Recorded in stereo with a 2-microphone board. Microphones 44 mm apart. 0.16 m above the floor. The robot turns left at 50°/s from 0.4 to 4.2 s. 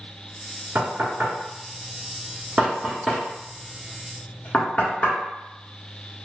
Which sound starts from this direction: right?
Knocking, at 0.8 s.